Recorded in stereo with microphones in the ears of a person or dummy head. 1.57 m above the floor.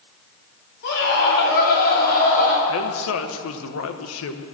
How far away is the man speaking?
About 1.2 m.